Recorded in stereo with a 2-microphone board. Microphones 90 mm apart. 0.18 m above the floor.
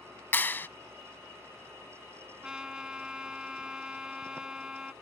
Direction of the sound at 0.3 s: 25° left (ahead or behind).